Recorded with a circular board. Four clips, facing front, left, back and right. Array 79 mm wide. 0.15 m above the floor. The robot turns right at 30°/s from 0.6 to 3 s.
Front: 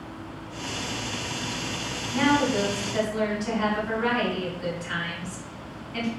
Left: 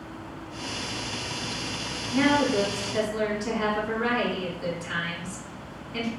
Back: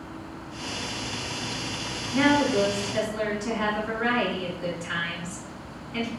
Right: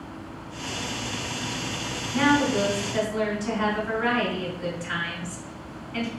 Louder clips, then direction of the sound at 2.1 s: Right 1 dB, back 1 dB; 145° right.